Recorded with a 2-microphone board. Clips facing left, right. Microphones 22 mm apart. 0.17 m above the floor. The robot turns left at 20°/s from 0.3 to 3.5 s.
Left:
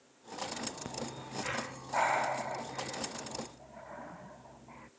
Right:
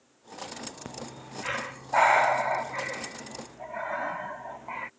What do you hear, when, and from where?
0.8 s breathing: 10° right (ahead or behind); by 4.9 s 65° right (ahead or behind)